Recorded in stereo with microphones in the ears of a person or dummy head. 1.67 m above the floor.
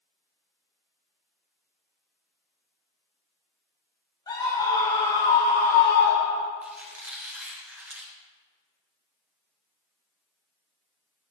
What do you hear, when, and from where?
4.3 s a scream: 25° left (ahead or behind), 2 m; by 6.5 s 60° left (ahead or behind), 1.2 m
6.6 s a squeak: 10° right (ahead or behind), 1.0 m